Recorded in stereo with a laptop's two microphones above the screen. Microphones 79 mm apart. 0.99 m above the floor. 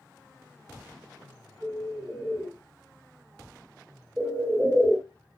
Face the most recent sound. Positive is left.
turn(degrees=-20)  # may be behind; listen again after turning